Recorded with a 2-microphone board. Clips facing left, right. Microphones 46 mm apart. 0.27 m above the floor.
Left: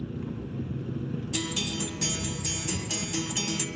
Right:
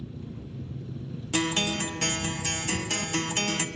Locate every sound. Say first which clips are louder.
0.0 s an engine running: left 5 dB; 55° left (ahead or behind), 1.5 m
1.3 s a guitar: right 8 dB; 50° right (ahead or behind), 1.4 m